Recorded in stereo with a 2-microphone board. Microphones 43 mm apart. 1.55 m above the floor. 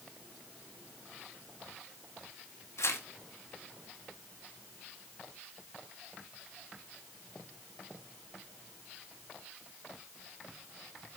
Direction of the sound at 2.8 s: 75° left (ahead or behind).